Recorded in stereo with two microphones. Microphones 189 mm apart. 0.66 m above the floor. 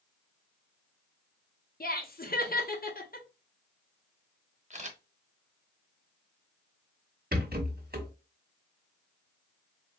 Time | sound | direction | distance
1.8 | laughter | 50° left (ahead or behind) | 0.9 m
4.7 | a camera shutter | 40° right (ahead or behind) | 0.7 m
7.3 | a rattle | 55° right (ahead or behind) | 1.0 m